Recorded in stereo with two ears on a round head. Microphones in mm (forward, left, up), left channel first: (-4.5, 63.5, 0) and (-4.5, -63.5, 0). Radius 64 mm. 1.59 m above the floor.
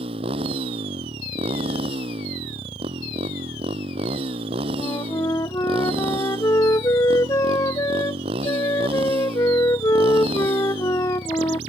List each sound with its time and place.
0.0 s a motorcycle: 40° right (ahead or behind)
4.8 s a flute: 20° left (ahead or behind)